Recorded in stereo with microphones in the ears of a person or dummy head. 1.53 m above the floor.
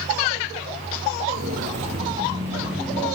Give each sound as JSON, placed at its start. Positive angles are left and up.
{"t": 1.3, "sound": "footsteps", "side_deg": -35, "distance_m": 2.0}